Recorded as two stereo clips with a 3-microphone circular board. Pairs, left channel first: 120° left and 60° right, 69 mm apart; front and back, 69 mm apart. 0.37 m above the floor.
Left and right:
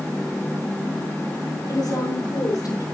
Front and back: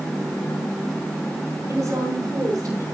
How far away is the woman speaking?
About 5.5 m.